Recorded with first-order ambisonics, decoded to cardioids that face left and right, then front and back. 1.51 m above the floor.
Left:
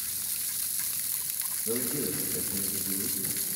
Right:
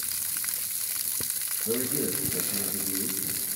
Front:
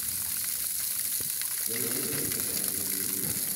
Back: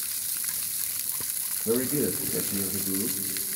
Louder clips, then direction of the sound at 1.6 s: Right 3 dB, back 10 dB; 170° right.